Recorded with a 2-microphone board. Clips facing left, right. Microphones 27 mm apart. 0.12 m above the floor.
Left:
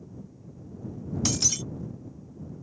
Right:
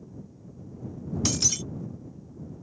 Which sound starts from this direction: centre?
Breaking glass, at 1.2 s.